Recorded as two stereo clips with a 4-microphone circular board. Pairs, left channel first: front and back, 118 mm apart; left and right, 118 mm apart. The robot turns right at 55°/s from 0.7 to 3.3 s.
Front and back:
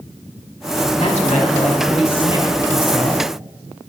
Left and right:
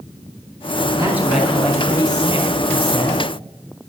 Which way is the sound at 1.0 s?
25° right.